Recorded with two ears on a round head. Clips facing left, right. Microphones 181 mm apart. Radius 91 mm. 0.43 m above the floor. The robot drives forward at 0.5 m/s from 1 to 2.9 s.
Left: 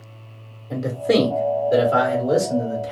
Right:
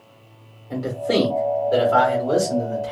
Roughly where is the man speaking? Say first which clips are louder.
Left 3 dB; left.